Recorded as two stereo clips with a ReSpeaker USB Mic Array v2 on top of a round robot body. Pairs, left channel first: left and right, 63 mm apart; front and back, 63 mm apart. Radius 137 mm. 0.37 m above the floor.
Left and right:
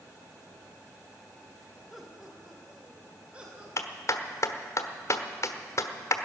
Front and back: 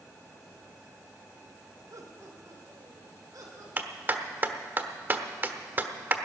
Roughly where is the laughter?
Behind.